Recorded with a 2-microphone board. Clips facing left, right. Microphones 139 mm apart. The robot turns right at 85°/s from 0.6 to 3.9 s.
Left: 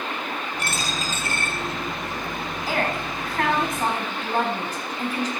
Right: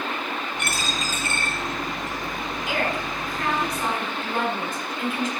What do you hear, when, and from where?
0.6 s a dropped coin: 35° left (ahead or behind), 3 m; by 2.2 s 80° right, 3 m
2.7 s a woman speaking: 30° left, 5 m; by 5.3 s 135° left, 5 m